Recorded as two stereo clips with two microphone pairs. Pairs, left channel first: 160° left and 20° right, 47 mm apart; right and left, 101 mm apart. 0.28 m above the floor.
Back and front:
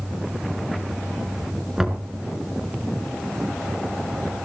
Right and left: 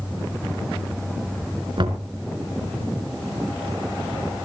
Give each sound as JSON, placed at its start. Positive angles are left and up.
{"t": 1.8, "sound": "knocking", "azimuth_deg": 60, "distance_m": 2.5}